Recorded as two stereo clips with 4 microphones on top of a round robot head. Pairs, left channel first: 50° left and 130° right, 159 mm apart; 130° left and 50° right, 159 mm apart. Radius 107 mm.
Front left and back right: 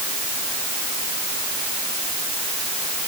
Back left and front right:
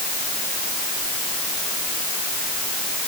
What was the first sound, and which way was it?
Only background noise.